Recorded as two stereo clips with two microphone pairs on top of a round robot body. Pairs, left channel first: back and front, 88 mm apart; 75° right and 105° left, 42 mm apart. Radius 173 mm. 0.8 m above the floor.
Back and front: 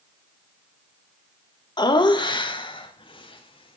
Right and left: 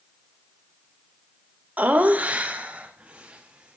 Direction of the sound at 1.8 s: 145° left.